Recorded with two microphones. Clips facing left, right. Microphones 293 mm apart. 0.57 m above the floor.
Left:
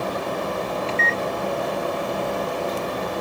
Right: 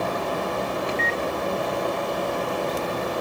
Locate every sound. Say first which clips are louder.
0.9 s a microwave: left 1 dB; 15° right (ahead or behind), 0.5 m